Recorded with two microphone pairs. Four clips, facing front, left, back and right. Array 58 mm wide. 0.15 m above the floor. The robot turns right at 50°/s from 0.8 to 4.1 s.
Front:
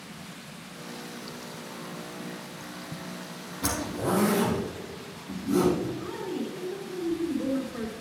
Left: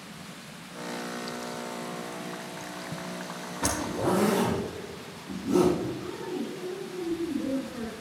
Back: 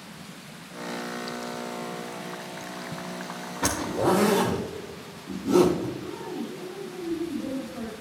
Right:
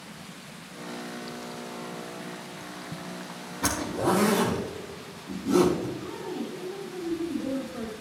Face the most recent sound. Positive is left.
turn(degrees=-5)